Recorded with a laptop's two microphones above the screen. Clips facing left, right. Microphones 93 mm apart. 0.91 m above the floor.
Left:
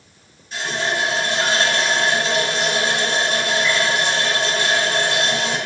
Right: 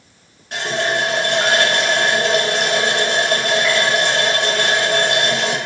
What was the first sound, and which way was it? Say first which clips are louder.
A running tap: right 3 dB; 60° right (ahead or behind).